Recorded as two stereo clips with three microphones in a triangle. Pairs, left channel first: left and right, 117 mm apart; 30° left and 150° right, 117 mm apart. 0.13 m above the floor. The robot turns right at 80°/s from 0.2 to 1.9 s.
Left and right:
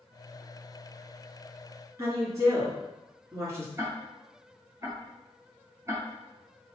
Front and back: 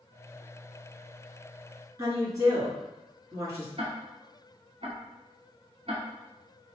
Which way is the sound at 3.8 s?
150° right.